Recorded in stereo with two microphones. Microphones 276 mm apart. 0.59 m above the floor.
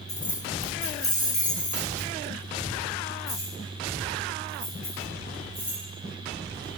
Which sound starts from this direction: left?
Keys jangling, at 0.1 s.